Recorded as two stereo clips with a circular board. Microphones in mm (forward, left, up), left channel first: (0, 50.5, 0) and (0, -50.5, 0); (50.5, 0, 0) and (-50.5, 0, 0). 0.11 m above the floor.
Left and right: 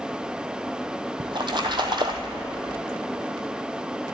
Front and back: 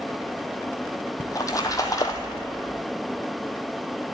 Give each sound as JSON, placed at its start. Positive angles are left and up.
{"t": 1.2, "sound": "a splash", "azimuth_deg": -55, "distance_m": 1.1}